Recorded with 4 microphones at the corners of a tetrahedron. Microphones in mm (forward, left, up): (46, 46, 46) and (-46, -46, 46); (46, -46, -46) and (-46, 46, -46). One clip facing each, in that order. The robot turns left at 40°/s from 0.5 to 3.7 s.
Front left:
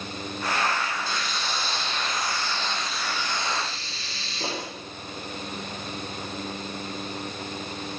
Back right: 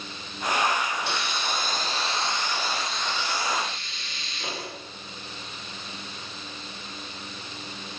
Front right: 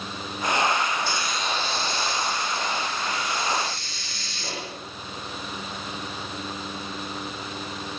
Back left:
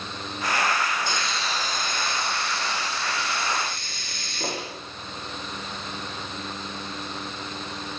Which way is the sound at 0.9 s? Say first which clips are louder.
Back right 1 dB, front right 1 dB; 145° right.